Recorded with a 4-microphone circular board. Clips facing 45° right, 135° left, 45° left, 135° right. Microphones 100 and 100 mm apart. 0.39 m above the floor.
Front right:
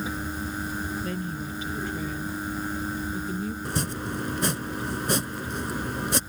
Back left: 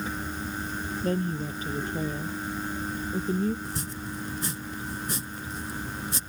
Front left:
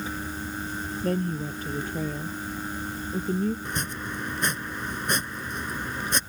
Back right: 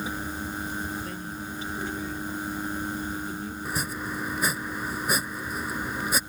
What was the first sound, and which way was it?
A woman speaking, 85° left.